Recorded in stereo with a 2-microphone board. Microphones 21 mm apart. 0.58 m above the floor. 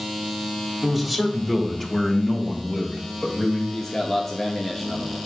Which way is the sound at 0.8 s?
5° left (ahead or behind).